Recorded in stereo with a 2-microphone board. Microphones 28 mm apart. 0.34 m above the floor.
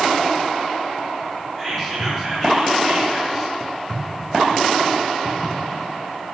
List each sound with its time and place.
1.6 s whispering: 10° left (ahead or behind), 3.5 m